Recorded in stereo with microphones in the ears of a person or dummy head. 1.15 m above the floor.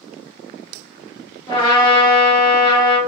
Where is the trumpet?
25° left (ahead or behind), 1.2 m.